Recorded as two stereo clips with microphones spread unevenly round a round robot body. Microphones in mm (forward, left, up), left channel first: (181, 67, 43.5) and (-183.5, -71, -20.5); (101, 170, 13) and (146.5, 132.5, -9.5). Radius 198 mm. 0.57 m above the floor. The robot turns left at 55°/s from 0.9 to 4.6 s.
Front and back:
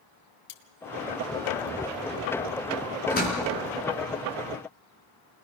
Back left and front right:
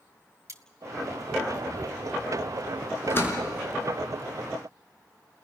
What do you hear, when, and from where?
0.5 s cutlery clinking: 10° right, 1.8 m
3.1 s a door slam: 95° left, 6 m; by 3.4 s 80° left, 6 m